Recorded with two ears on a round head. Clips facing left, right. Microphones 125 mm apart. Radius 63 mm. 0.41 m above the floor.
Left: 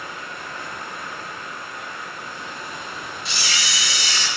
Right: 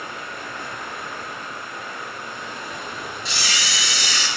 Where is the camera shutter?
75° right (ahead or behind), 3 m.